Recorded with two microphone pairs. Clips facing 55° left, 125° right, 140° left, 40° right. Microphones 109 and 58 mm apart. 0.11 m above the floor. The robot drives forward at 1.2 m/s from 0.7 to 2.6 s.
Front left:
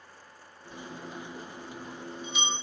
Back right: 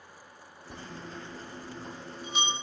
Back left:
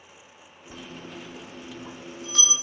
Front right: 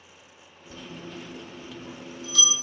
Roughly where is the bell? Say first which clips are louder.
Front left 1 dB, even; behind right.